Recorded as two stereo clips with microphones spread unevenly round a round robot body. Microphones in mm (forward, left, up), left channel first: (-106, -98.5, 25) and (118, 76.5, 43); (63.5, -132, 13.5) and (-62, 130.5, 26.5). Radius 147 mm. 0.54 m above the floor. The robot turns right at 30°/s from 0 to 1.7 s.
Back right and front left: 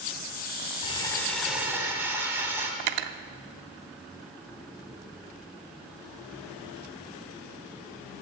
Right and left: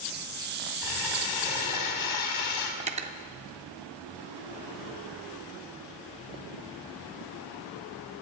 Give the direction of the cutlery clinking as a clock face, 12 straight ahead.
10 o'clock.